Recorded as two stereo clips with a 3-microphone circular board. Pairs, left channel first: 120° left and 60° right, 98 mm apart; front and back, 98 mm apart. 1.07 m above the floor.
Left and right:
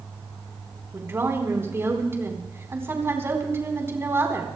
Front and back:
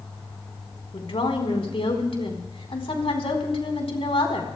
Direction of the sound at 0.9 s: 5° left.